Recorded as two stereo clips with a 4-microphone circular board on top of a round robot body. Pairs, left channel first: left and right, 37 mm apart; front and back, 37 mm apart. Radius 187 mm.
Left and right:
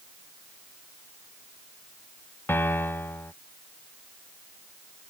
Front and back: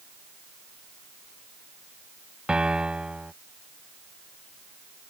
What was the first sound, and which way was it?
A piano, 115° left.